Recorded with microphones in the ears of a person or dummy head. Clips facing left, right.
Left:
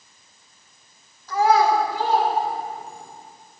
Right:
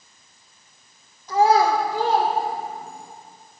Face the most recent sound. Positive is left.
turn(degrees=-70)  # may be behind; listen again after turning